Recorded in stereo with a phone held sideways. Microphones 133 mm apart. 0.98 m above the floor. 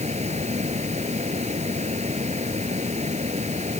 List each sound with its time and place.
0.0 s a fan: 60° right (ahead or behind)